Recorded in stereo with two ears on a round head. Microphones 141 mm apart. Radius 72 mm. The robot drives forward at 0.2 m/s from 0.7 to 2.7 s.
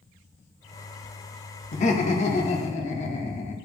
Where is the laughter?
45° left (ahead or behind), 0.6 m; by 3.5 s 40° left (ahead or behind), 0.7 m.